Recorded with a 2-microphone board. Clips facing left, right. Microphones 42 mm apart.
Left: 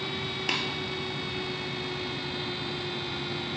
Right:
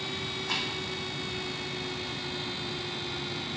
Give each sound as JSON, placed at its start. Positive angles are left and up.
{"t": 0.5, "sound": "tapping", "side_deg": 75, "distance_m": 1.8}